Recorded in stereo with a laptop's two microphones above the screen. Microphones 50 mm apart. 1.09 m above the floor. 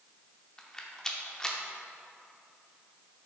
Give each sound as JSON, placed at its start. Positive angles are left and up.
{"t": 0.6, "sound": "a rattle", "side_deg": 15, "distance_m": 0.8}